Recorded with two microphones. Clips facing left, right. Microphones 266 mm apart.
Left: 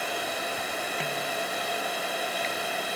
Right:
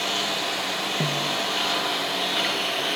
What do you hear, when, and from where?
0.0 s a lawn mower: 90° right; by 3.0 s 85° right
1.0 s a snare drum: 45° right (ahead or behind)